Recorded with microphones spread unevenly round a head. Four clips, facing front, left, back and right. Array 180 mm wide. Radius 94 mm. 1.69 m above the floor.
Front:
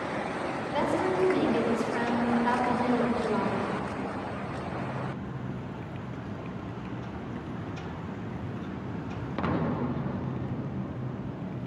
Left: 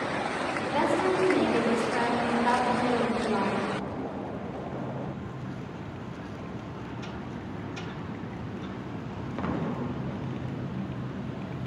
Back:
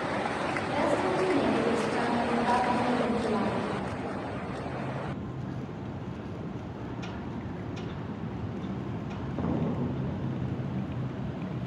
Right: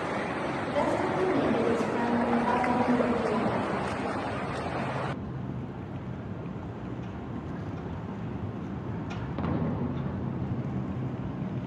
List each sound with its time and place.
0.7 s a woman speaking: 65° left, 7 m